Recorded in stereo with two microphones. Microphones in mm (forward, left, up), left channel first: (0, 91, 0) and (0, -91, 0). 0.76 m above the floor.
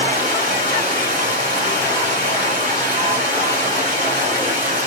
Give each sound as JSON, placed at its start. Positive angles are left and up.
{"t": 0.0, "sound": "running water", "side_deg": -50, "distance_m": 2.0}